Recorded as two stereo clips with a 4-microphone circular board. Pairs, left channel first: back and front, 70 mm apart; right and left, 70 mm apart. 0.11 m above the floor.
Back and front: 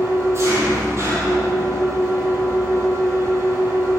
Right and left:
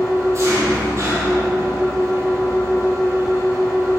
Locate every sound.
0.0 s an engine running: 45° left, 1.9 m